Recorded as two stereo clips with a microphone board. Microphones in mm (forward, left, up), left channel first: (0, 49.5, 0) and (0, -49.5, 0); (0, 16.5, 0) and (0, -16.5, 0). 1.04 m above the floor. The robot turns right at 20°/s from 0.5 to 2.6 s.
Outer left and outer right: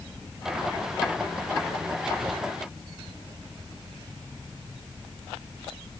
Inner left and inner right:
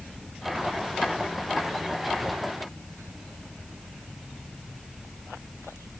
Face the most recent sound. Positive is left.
No sound to turn to.